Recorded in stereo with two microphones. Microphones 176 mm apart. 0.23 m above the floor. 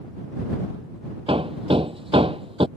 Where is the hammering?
30° right (ahead or behind).